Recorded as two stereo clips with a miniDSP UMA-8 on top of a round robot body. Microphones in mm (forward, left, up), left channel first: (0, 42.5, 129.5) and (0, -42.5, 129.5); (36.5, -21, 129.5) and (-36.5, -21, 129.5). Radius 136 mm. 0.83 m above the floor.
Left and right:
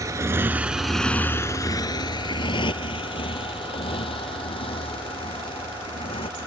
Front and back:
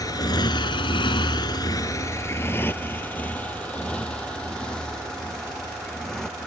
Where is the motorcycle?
40° right; by 6.5 s 85° left.